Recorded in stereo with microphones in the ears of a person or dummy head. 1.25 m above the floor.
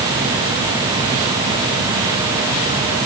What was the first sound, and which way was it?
Only background noise.